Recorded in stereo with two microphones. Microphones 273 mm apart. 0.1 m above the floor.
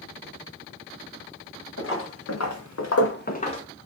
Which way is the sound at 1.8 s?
45° left (ahead or behind).